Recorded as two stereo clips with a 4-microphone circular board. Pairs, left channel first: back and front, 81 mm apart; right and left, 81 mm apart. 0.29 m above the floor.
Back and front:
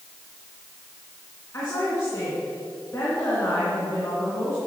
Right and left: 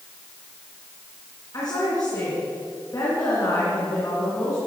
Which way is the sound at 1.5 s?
130° right.